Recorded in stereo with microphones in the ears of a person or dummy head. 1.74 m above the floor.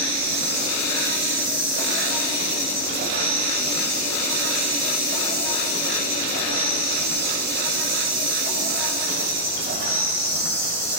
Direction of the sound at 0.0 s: 45° right (ahead or behind).